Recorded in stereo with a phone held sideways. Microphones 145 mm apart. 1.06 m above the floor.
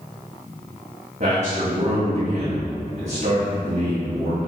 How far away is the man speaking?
About 2.5 m.